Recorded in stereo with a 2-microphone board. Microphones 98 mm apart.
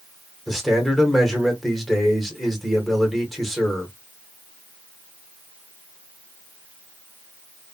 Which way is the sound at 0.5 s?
Centre (ahead or behind).